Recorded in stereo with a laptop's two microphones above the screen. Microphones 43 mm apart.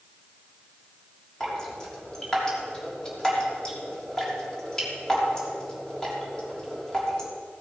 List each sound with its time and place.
1.4 s dripping: 15° left (ahead or behind), 3 m